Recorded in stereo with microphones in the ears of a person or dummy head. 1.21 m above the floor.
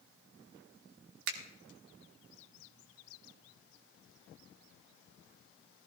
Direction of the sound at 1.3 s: 65° right (ahead or behind).